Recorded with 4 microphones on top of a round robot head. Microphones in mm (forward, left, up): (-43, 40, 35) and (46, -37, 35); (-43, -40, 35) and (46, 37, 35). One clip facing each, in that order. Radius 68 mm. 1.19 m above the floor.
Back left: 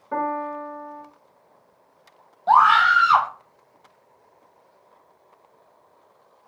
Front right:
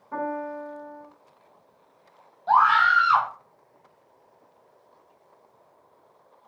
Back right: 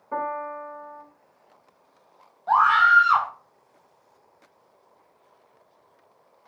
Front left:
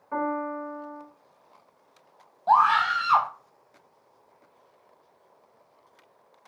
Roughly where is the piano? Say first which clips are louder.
Back left 4 dB, front left 1 dB; behind left.